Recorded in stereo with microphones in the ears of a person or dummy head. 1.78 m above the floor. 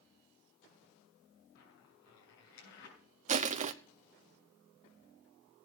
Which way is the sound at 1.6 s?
65° left (ahead or behind).